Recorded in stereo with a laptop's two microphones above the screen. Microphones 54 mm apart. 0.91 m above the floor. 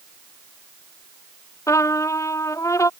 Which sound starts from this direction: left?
A trumpet, at 1.7 s.